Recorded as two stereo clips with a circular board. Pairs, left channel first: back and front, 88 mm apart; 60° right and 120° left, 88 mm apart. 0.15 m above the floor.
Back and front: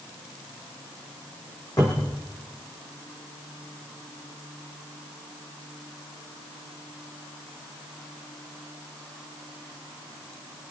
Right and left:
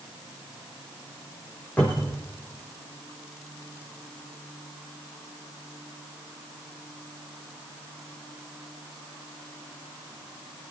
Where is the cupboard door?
135° right, 6.5 m.